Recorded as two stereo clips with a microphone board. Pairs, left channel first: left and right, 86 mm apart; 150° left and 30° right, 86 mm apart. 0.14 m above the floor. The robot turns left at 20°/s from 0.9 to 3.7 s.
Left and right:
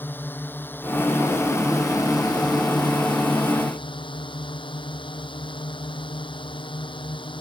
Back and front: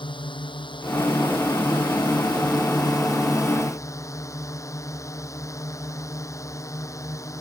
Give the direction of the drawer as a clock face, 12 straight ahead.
I don't hear a drawer.